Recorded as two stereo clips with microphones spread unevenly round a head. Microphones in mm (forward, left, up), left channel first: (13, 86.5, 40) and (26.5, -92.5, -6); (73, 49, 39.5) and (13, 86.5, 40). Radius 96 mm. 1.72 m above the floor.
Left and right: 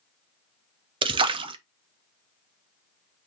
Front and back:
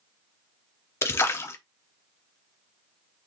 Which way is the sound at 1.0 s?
20° right.